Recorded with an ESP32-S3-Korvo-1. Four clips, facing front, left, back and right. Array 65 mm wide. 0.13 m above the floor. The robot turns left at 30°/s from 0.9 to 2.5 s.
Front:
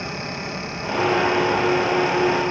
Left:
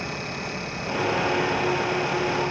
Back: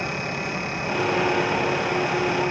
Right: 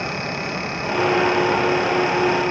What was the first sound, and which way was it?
Only background noise.